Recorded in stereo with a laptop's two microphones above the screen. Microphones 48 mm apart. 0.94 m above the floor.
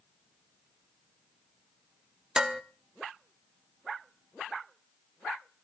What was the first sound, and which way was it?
Dishes clattering, 15° right (ahead or behind).